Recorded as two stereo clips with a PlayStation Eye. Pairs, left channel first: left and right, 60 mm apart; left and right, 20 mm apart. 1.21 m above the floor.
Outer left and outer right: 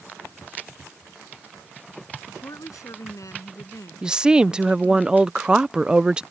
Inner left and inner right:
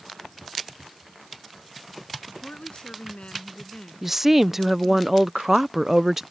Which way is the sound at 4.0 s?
15° right (ahead or behind).